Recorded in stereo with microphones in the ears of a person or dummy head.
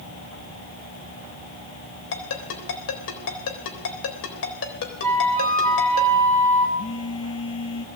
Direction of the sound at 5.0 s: 10° left (ahead or behind).